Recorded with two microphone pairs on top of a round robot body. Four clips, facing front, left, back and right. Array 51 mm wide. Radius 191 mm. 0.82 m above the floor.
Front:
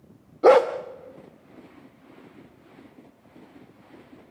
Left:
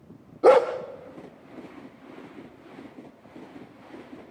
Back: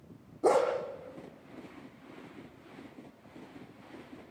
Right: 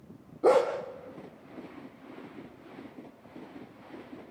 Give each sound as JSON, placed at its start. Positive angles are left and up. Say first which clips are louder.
{"t": 0.4, "sound": "a dog barking", "louder": "left 6 dB, front 10 dB", "azimuth_deg": 20, "distance_m": 0.6}